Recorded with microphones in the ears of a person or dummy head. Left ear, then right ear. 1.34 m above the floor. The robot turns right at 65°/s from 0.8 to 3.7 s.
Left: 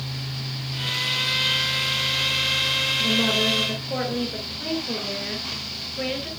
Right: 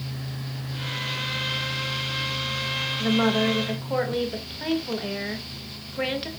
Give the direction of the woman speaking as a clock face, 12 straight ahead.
3 o'clock.